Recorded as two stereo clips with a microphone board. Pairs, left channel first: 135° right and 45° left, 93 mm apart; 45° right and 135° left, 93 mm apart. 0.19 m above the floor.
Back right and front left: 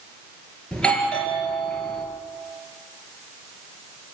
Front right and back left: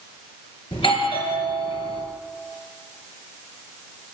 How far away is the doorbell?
About 4.5 m.